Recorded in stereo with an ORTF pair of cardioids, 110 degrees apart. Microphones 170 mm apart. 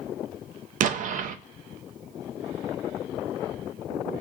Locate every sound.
0.8 s an explosion: 50° right, 0.6 m